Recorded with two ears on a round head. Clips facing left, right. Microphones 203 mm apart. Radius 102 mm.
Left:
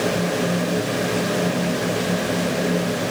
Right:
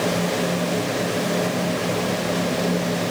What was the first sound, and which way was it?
Only background noise.